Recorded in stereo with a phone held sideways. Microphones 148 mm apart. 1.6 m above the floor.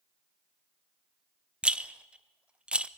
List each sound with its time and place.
1.6 s a rattle: 5° right (ahead or behind), 0.6 m